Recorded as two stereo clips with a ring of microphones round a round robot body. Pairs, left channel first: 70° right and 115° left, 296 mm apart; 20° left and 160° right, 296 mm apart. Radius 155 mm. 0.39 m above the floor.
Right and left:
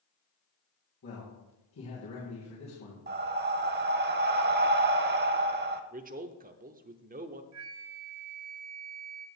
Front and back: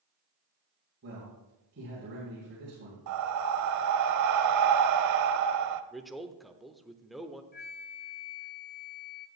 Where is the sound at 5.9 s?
110° left, 0.8 m.